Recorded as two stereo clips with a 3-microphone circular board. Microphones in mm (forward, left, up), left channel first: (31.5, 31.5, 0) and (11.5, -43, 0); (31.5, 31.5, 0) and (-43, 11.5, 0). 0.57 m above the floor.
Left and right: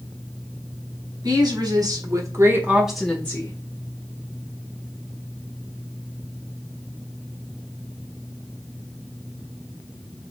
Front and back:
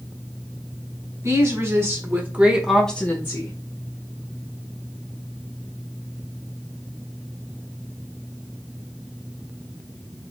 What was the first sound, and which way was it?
A woman speaking, 125° right.